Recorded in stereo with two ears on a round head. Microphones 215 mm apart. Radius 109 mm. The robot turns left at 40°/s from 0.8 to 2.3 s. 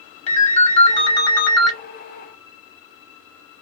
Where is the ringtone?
35° left, 0.8 m; by 1.7 s straight ahead, 0.8 m.